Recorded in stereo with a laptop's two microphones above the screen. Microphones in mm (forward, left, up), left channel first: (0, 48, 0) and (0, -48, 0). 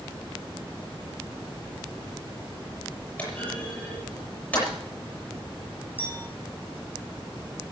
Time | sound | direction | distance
3.2 | a clunk | 15° left (ahead or behind) | 7.5 m
6.0 | a clink | 20° left (ahead or behind) | 4 m